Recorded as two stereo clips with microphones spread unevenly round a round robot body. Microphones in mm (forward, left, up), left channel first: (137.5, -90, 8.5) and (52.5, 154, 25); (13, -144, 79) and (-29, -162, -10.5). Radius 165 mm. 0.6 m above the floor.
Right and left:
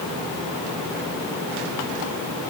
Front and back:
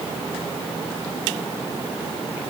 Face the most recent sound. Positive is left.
No sound to turn to.